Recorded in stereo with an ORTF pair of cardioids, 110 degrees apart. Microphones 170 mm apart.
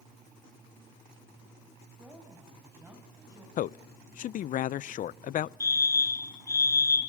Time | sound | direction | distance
2.0 | a woman speaking | 10° right | 7.5 m
3.6 | a man speaking | 50° left | 0.6 m
5.6 | a fire alarm | 20° left | 4 m